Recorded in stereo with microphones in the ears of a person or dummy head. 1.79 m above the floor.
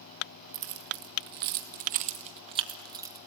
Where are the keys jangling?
60° right (ahead or behind), 1.8 m; by 3.2 s 10° right (ahead or behind), 1.7 m.